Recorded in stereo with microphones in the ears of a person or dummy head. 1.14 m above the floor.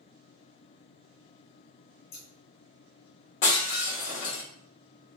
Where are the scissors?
60° left (ahead or behind), 1.9 m.